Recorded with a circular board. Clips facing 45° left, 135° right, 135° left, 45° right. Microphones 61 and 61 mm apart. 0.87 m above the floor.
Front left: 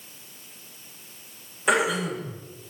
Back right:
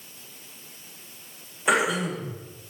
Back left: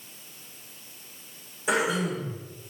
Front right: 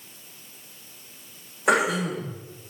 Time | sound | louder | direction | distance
1.7 | throat clearing | even, front right 4 dB | 50° right | 1.7 m